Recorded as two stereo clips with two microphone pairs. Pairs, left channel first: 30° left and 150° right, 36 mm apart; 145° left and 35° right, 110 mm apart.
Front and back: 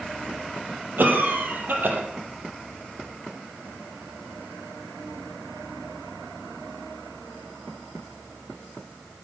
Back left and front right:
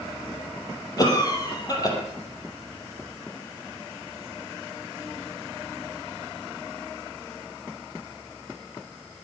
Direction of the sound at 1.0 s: 165° right.